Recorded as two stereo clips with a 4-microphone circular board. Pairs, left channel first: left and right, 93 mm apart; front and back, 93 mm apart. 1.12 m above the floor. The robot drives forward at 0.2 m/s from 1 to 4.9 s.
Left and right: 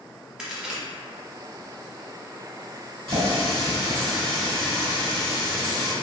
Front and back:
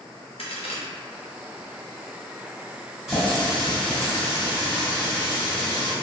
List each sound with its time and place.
0.4 s a crack: 10° right, 0.6 m
3.1 s a running tap: 90° right, 1.6 m; by 5.9 s 105° right, 1.7 m